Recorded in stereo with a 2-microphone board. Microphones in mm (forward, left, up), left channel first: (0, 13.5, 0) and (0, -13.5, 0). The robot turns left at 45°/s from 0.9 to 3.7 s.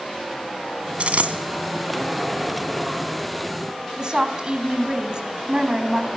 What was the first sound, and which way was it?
A dropped coin, 50° right (ahead or behind).